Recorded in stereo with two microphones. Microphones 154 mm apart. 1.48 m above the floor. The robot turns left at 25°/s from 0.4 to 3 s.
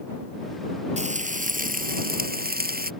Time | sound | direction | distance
1.0 | frying | 50° right | ?